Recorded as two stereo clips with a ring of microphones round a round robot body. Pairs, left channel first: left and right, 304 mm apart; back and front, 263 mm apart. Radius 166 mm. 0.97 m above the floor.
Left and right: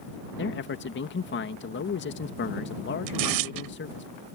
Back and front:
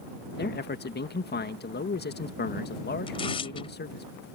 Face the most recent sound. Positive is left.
turn(degrees=-105)